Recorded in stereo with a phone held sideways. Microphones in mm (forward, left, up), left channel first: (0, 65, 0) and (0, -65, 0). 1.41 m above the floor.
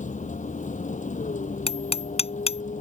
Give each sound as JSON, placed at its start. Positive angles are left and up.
{"t": 0.0, "sound": "a vehicle", "side_deg": 70}
{"t": 1.7, "sound": "hammering", "side_deg": 50}